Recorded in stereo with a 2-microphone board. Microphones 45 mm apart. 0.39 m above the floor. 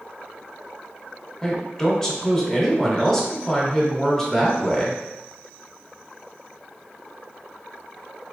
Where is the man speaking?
10° left (ahead or behind), 1.0 m.